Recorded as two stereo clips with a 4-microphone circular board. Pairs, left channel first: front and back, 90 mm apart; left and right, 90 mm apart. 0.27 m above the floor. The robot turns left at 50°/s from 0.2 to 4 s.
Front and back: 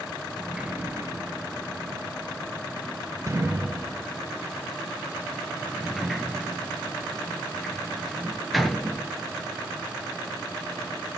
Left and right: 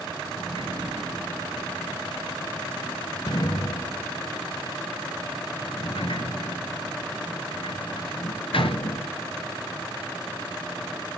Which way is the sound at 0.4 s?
90° right.